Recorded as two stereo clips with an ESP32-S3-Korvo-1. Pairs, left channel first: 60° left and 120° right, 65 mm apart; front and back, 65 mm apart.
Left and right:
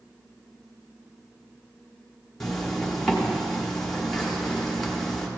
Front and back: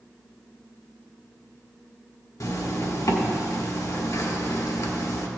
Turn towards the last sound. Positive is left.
turn(degrees=-25)